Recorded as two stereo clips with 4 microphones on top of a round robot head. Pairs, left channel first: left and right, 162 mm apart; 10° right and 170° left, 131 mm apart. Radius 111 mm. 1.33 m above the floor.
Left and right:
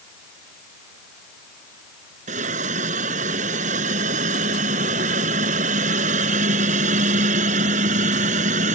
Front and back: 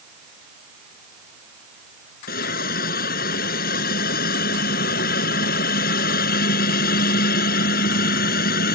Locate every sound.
2.3 s a hiss: 35° right